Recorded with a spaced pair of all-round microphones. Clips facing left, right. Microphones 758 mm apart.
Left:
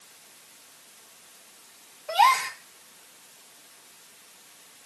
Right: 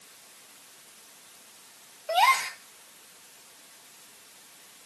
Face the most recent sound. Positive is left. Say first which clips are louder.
# left 1 dB
turn(degrees=70)  # may be behind; listen again after turning